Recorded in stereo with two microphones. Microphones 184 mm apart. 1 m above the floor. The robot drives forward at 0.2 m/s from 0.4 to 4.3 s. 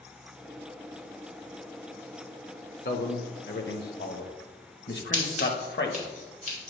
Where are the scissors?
40° left (ahead or behind), 2.5 m.